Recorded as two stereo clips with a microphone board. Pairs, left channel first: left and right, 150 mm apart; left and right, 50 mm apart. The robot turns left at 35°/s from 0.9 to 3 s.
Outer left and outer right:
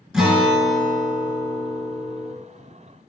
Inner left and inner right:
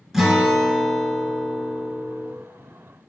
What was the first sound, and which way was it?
A guitar, 5° right.